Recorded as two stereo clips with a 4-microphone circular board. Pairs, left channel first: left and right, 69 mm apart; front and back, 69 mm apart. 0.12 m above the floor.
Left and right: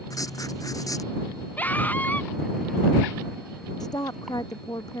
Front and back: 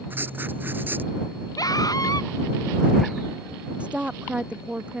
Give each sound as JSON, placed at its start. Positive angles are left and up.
{"t": 0.1, "sound": "writing", "azimuth_deg": 120}
{"t": 1.6, "sound": "a scream", "azimuth_deg": 25}
{"t": 3.8, "sound": "a woman speaking", "azimuth_deg": 110}